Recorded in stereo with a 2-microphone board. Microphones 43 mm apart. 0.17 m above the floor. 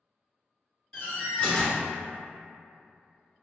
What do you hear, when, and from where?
0.9 s a door slam: 20° left (ahead or behind), 1.8 m